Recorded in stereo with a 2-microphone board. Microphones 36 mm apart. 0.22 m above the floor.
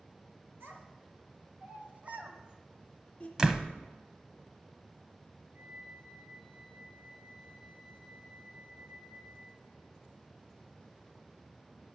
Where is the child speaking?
70° right (ahead or behind), 3 m; by 3.3 s 25° left (ahead or behind), 1.4 m.